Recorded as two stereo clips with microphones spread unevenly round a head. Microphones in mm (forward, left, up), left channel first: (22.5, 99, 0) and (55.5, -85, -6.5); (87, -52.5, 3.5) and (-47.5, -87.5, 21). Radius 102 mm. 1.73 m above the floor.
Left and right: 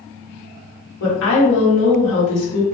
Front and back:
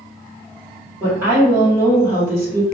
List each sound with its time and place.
1.0 s a woman speaking: 115° left, 1.4 m